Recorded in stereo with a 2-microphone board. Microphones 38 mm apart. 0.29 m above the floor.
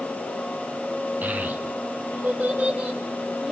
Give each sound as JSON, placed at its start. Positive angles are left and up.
{"t": 1.2, "sound": "a child speaking", "side_deg": -60, "distance_m": 2.0}